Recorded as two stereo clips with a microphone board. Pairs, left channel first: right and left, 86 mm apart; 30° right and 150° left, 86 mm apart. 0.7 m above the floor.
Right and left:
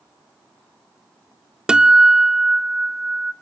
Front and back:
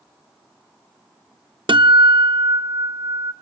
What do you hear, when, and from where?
1.7 s a guitar: 170° left, 0.6 m